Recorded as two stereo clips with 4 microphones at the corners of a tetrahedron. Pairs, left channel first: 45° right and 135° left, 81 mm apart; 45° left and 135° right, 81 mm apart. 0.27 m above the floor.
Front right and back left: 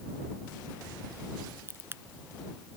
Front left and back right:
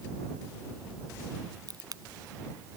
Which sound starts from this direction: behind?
A crack, at 1.7 s.